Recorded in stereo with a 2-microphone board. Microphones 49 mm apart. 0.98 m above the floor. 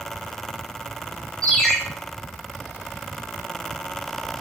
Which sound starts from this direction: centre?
A ringtone, at 1.4 s.